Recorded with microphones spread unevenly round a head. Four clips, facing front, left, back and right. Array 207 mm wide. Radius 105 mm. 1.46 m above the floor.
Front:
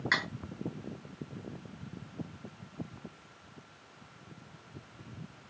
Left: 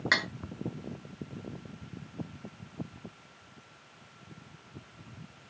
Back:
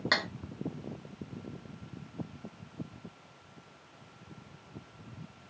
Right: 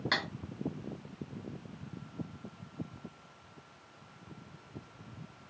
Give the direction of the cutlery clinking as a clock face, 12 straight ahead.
6 o'clock.